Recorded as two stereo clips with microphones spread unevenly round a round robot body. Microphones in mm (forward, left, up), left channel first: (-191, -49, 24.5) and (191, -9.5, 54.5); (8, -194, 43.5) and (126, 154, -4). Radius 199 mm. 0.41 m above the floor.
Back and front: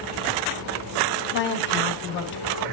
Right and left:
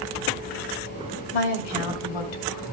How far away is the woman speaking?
About 2 m.